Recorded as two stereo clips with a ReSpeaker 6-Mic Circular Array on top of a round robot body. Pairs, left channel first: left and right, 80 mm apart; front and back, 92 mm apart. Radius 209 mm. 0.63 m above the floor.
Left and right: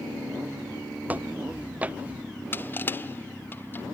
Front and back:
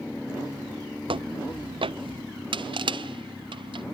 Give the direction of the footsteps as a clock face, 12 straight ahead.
5 o'clock.